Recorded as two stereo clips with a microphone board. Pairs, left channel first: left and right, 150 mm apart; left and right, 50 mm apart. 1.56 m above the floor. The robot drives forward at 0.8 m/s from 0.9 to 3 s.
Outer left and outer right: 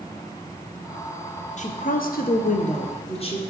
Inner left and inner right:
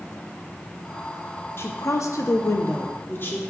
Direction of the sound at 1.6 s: 55° left (ahead or behind).